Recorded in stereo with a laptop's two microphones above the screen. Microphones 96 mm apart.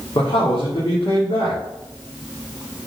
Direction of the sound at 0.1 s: 80° left.